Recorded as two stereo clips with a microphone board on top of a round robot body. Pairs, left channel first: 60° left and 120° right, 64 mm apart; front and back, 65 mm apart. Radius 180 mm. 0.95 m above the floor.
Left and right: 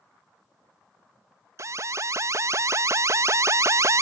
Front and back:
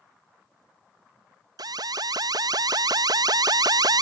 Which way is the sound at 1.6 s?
165° right.